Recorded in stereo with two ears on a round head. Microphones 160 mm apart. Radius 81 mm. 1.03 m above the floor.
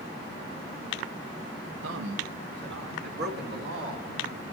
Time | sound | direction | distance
1.8 | a man speaking | 80° right | 1.2 m